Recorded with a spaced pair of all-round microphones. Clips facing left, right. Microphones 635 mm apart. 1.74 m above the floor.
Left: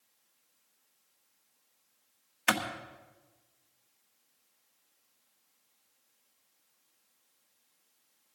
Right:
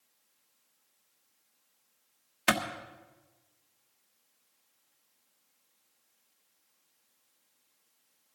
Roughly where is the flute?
No flute in this recording.